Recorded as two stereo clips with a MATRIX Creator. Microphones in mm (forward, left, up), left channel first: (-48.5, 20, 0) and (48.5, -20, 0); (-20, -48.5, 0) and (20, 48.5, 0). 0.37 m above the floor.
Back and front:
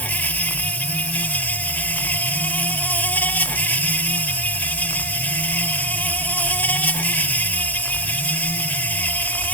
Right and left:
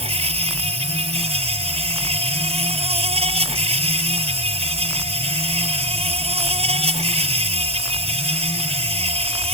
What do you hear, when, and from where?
0.0 s an insect: 85° left